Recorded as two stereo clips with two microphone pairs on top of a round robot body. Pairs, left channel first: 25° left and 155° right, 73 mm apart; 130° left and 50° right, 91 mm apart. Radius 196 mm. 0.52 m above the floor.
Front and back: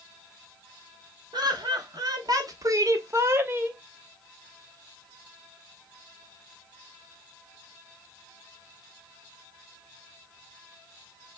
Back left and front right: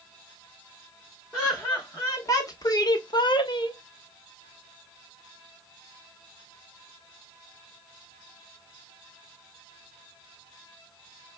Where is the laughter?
165° right, 1.6 m; by 3.8 s 140° left, 1.2 m.